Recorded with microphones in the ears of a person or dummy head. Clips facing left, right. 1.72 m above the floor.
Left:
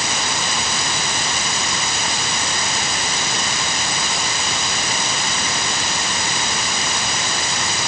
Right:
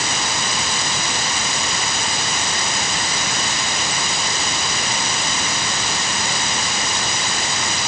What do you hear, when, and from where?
Only background noise.